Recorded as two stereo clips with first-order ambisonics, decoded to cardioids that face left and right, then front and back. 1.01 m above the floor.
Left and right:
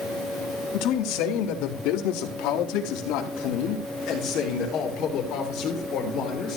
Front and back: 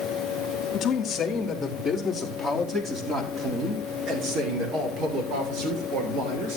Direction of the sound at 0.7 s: 65° left.